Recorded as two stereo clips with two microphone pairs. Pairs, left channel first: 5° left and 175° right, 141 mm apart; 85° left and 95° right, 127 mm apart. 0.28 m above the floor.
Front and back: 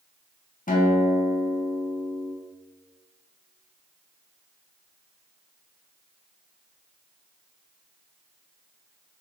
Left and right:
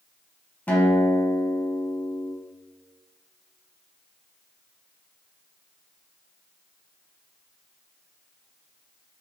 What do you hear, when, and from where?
0.7 s a guitar: 5° left, 0.5 m